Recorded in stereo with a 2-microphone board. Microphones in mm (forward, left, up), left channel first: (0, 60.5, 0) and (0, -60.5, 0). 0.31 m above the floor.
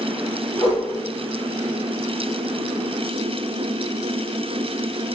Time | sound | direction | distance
0.6 | a whoosh | 45° left (ahead or behind) | 1.9 m